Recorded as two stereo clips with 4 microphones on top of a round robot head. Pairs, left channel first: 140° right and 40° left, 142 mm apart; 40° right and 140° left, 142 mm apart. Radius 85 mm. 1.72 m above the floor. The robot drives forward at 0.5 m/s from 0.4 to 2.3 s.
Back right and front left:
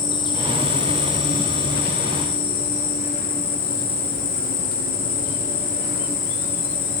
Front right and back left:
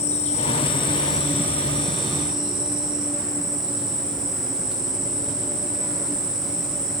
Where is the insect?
80° right, 0.8 m; by 7.0 s 140° right, 1.2 m.